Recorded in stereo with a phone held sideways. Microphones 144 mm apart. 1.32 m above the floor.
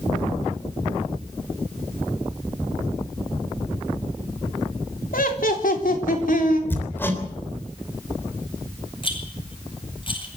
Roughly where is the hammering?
Centre.